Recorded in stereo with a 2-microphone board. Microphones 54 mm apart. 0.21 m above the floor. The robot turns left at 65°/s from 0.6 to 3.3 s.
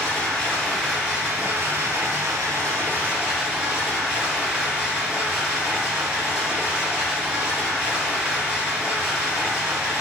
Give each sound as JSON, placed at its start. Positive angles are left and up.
{"t": 0.0, "sound": "running water", "azimuth_deg": 15, "distance_m": 1.8}